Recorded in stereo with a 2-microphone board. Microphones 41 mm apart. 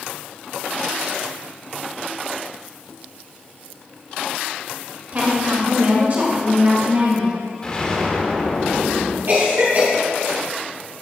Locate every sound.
5.1 s a woman speaking: 35° right (ahead or behind), 2 m; by 7.3 s 40° right (ahead or behind), 3.5 m
7.6 s an explosion: 20° left (ahead or behind), 1.0 m
9.3 s a cough: 65° right (ahead or behind), 3 m